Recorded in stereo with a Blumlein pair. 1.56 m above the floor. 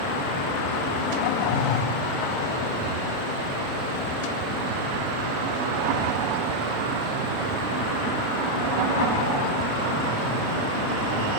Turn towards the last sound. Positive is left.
turn(degrees=35)